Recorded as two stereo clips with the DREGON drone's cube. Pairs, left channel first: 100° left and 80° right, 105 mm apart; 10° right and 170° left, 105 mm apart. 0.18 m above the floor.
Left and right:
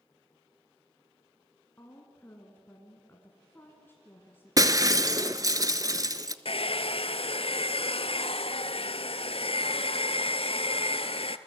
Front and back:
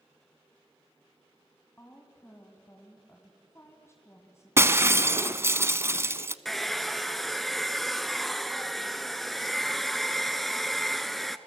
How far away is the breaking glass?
About 0.7 m.